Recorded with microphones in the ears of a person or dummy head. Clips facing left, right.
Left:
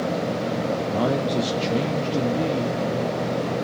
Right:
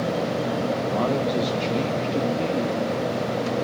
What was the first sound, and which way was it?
A man speaking, 5° left (ahead or behind).